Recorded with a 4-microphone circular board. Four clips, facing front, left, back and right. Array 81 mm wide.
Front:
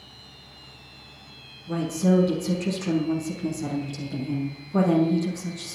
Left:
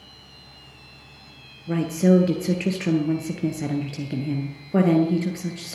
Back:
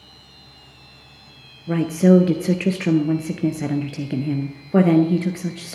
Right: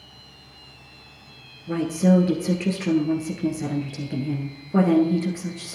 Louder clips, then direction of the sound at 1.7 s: Left 1 dB, back 7 dB; 165° left.